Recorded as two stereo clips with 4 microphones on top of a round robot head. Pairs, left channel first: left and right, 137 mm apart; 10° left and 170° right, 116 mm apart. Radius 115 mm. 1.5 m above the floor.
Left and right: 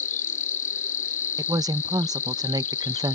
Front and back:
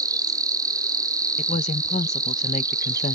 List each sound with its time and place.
0.0 s an insect: 135° left
1.4 s a woman speaking: 25° right